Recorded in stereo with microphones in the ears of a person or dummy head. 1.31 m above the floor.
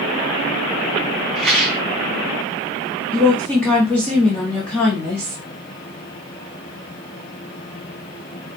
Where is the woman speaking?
10° left (ahead or behind), 0.8 m.